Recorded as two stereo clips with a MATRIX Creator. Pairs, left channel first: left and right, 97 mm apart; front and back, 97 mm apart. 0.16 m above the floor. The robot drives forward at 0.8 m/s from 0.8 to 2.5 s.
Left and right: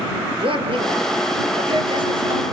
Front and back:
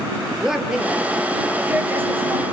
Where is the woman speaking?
95° right, 3 m; by 2.4 s 120° right, 3.5 m.